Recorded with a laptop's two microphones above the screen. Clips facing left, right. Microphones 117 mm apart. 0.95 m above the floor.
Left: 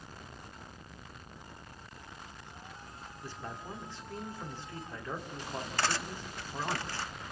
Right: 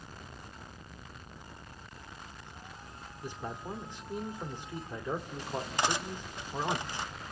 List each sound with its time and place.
3.2 s a man speaking: 20° right (ahead or behind), 2.5 m
5.8 s cutlery clinking: 20° right (ahead or behind), 0.8 m